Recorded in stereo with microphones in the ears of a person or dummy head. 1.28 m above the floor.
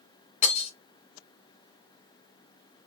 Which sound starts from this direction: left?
Breaking glass, at 0.4 s.